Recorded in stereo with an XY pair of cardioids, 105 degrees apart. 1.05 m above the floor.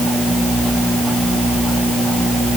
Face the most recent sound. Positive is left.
No sound to turn to.